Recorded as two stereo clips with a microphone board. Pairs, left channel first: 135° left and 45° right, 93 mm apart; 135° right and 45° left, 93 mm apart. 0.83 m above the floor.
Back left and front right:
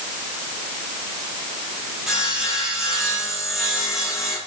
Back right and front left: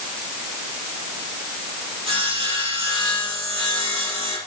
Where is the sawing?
40° left, 4 m.